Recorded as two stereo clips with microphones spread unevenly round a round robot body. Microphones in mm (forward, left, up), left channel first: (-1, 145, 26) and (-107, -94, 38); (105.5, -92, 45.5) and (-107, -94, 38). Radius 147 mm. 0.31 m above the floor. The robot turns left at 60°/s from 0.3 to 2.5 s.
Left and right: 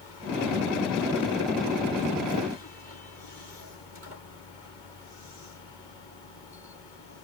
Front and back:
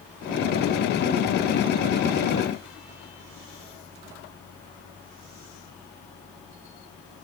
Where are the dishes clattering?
I don't hear dishes clattering.